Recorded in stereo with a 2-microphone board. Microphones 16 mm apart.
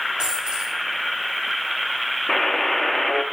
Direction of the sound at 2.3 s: 35° left (ahead or behind).